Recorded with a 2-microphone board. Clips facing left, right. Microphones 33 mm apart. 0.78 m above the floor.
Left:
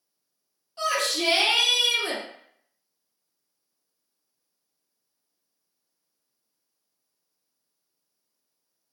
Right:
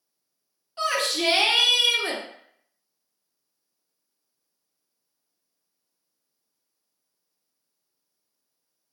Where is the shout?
35° right (ahead or behind), 0.8 m.